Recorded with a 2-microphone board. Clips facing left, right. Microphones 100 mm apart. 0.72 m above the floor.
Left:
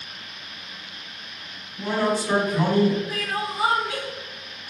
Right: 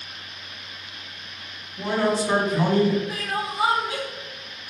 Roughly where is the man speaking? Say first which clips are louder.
Right 1 dB; right.